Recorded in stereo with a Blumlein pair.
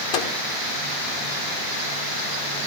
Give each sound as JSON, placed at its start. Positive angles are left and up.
{"t": 0.1, "sound": "a microwave", "azimuth_deg": 45, "distance_m": 1.5}